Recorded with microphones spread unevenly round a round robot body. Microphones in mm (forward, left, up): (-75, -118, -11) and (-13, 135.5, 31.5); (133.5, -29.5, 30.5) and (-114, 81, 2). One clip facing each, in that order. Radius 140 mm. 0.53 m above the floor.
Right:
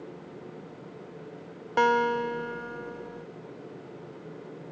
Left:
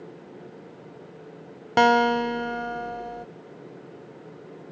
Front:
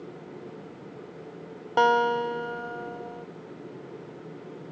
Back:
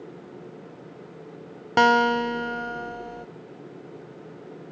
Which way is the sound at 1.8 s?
115° left.